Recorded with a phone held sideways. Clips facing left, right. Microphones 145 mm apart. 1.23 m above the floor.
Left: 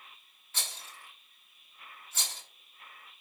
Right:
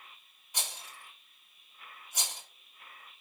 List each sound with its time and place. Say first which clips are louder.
0.5 s a rattle: right 2 dB; 15° right (ahead or behind), 3 m